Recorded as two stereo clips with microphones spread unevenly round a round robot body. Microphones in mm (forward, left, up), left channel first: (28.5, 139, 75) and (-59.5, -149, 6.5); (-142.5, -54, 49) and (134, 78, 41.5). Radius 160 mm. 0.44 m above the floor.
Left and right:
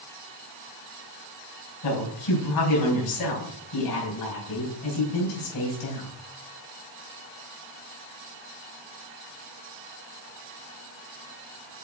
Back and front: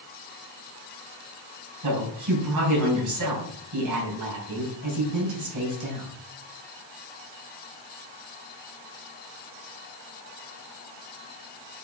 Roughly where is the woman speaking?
Ahead left.